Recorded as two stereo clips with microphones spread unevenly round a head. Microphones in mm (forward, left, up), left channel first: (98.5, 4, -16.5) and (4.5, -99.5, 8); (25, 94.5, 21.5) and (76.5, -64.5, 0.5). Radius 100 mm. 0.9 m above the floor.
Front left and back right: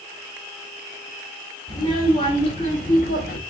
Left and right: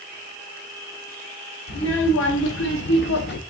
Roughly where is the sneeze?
No sneeze in this recording.